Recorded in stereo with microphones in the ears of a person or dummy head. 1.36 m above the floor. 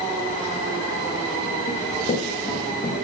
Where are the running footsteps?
40° left (ahead or behind), 6.5 m; by 2.9 s 45° left (ahead or behind), 7 m.